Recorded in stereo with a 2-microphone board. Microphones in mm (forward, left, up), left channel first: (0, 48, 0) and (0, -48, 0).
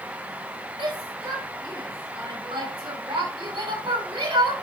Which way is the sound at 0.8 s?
65° right (ahead or behind).